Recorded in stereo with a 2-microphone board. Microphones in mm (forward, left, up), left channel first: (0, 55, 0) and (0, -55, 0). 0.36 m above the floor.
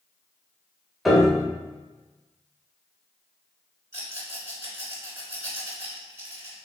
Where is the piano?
Centre (ahead or behind), 0.8 m.